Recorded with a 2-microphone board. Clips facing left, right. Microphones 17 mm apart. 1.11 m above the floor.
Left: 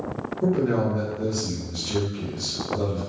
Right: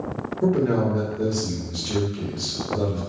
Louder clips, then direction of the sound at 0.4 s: Right 2 dB; 25° right (ahead or behind).